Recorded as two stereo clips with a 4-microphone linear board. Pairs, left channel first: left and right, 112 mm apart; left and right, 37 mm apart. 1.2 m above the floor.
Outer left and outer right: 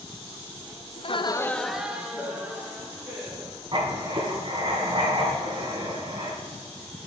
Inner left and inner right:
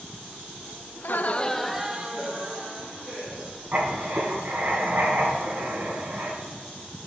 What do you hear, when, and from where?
1.0 s laughter: 50° left (ahead or behind), 0.6 m; by 3.6 s 25° right (ahead or behind), 3 m
3.7 s writing: 50° right (ahead or behind), 2.5 m